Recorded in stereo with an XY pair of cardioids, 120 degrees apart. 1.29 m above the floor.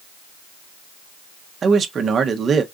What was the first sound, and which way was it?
A man speaking, 40° right.